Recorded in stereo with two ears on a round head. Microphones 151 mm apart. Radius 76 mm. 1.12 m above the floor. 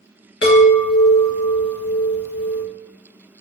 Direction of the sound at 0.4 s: 70° left (ahead or behind).